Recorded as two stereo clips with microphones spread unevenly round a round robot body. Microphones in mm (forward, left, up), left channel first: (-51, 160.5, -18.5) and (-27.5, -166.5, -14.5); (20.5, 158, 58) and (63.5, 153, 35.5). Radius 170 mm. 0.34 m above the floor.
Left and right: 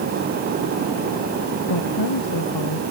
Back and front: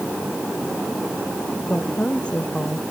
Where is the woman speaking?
110° left.